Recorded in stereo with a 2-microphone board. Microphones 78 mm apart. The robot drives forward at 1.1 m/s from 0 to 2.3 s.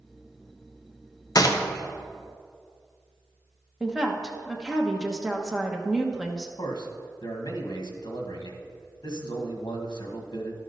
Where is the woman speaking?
10° right (ahead or behind), 0.9 m.